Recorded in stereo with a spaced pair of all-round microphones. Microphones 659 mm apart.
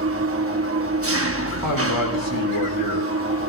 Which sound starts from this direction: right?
An engine running, at 0.0 s.